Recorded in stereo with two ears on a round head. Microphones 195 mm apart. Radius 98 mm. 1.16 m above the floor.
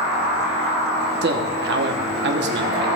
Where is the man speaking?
55° right (ahead or behind), 1.1 m.